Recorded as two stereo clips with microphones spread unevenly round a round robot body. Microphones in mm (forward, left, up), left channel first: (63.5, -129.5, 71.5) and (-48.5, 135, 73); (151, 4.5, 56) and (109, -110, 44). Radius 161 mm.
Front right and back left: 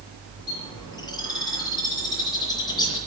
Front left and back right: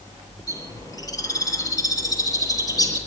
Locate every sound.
0.5 s a bird: 10° left, 7 m